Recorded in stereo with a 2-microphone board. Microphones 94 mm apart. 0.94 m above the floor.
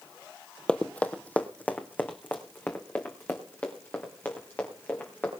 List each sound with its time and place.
0.7 s running footsteps: 10° left (ahead or behind), 1.0 m; by 5.3 s 20° left (ahead or behind), 7 m